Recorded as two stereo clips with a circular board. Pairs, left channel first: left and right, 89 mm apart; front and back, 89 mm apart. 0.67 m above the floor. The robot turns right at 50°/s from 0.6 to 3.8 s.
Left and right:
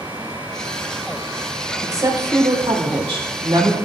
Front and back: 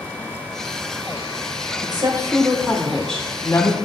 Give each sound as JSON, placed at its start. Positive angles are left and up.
{"t": 1.8, "sound": "a woman speaking", "azimuth_deg": -145, "distance_m": 1.9}